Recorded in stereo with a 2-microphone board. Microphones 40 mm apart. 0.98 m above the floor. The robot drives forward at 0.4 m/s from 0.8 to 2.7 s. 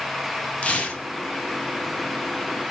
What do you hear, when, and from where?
0.6 s tearing paper: 30° left (ahead or behind), 0.7 m